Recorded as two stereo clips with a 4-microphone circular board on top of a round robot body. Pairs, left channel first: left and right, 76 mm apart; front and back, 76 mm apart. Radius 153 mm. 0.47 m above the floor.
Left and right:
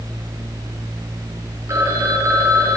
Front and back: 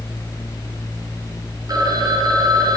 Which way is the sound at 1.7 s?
140° right.